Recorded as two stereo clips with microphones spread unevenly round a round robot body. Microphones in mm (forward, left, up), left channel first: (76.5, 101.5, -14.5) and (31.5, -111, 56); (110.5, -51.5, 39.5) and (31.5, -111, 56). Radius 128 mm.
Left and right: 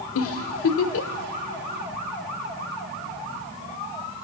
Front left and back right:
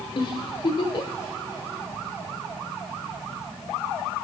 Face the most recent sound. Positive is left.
turn(degrees=85)